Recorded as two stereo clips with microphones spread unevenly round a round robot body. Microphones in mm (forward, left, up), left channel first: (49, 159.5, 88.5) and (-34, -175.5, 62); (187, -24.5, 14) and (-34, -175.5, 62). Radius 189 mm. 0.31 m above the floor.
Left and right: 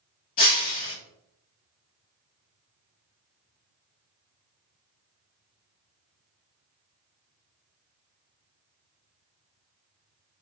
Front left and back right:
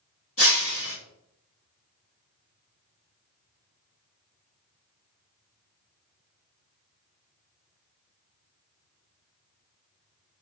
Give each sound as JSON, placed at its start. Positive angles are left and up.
{"t": 0.4, "sound": "breaking glass", "azimuth_deg": 90, "distance_m": 1.5}